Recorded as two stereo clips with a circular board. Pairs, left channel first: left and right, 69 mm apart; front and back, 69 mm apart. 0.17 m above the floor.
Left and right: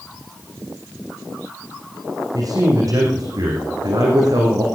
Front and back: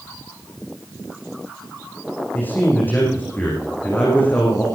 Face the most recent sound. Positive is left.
turn(degrees=-60)